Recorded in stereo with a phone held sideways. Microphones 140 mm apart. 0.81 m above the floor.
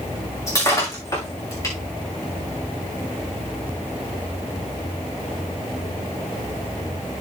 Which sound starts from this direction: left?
Breaking glass, at 0.5 s.